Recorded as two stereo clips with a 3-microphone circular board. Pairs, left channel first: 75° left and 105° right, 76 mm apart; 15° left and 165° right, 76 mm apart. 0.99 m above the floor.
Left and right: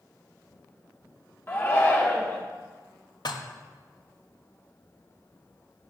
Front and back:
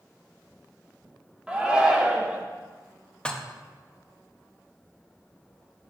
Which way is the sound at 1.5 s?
125° left.